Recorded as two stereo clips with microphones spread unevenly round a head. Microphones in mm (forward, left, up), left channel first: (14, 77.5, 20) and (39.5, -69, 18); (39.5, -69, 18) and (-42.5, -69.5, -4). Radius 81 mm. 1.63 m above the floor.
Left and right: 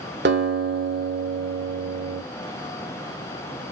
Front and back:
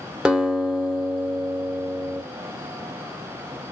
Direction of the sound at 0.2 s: 90° right.